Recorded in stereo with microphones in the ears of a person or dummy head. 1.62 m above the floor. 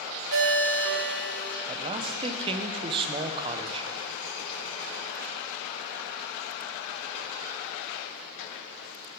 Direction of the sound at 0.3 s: 60° right (ahead or behind).